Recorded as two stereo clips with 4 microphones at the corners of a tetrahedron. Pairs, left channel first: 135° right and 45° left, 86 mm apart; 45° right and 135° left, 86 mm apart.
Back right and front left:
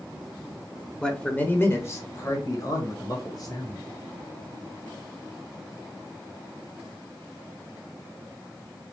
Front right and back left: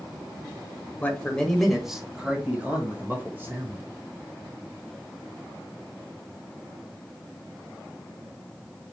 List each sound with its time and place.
1.0 s a man speaking: 70° right, 1.1 m; by 3.9 s 165° right, 2.5 m